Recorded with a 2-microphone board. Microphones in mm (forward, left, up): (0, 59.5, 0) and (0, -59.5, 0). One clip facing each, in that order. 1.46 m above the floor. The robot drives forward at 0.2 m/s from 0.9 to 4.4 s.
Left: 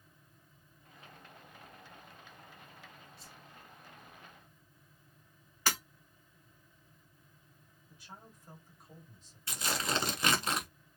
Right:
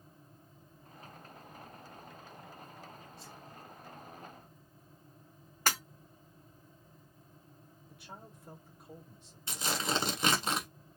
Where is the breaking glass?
50° right (ahead or behind), 1.8 m.